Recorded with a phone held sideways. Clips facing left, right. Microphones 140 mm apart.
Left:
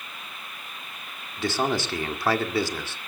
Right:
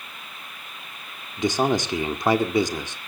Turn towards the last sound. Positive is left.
turn(degrees=-20)  # may be behind; listen again after turning